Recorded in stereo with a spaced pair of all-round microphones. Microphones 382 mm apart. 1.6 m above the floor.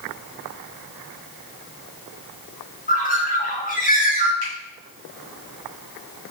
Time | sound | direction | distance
2.9 | a bird | 20° left (ahead or behind) | 0.6 m
4.4 | a finger snap | 85° right | 1.2 m